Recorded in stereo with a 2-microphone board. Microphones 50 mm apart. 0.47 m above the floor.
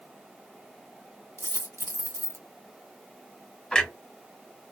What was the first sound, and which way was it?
A dropped coin, 70° right (ahead or behind).